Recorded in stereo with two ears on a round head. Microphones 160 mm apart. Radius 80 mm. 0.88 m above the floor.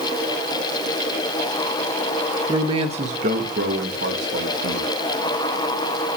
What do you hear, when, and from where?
2.5 s a man speaking: 20° right (ahead or behind), 0.9 m; by 4.9 s 65° right (ahead or behind), 1.7 m